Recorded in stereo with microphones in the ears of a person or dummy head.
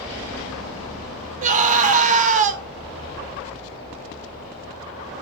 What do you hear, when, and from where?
1.4 s a scream: 40° right (ahead or behind), 1.2 m